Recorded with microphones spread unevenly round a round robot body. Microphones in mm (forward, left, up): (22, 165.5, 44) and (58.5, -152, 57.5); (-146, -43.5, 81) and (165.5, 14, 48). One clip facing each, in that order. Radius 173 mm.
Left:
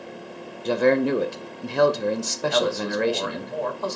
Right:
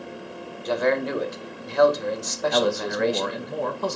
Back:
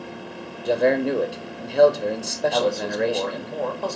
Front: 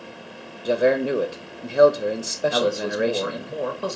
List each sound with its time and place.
0.7 s a man speaking: 85° left, 0.6 m
2.5 s a man speaking: 55° right, 1.0 m